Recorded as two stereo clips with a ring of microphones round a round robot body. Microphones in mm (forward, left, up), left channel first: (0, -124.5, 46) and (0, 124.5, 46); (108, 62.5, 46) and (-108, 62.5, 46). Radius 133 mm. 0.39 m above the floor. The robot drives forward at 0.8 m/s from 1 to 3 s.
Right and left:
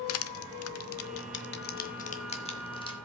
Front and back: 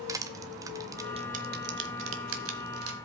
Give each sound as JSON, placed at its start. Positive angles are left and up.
{"t": 0.1, "sound": "crushing", "azimuth_deg": -105, "distance_m": 0.7}